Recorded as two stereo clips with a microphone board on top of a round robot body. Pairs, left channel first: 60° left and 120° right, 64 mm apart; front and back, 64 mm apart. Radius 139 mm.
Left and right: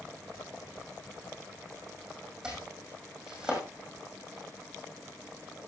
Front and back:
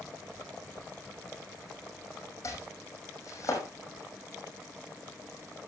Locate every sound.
2.4 s chopping: 40° right, 6 m